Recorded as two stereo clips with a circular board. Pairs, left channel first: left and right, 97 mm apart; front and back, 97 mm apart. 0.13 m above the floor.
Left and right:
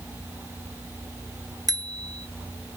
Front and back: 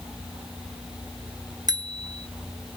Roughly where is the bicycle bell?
Behind right.